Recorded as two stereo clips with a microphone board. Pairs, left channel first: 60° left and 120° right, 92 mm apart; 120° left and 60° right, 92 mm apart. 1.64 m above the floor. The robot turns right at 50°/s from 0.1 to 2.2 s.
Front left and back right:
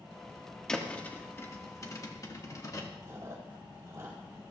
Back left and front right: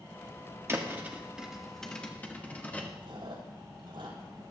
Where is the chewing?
65° right, 3.5 m.